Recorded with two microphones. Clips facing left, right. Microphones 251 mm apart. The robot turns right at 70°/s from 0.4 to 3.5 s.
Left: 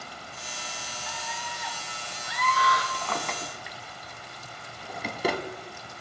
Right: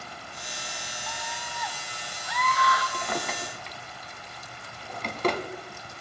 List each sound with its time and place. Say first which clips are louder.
1.1 s a scream: even; 5° left, 1.5 m; by 2.8 s 130° left, 1.5 m
2.9 s a drawer: right 2 dB; 25° right (ahead or behind), 0.9 m; by 5.4 s 10° left (ahead or behind), 0.9 m